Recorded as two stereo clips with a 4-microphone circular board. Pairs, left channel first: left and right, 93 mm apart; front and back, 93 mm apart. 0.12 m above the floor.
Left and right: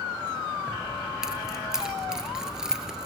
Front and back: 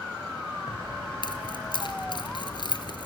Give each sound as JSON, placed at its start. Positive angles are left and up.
{"t": 0.7, "sound": "keys jangling", "azimuth_deg": -10, "distance_m": 1.3}